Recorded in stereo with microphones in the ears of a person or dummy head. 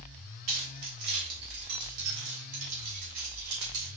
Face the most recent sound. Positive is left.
turn(degrees=-70)  # may be behind; listen again after turning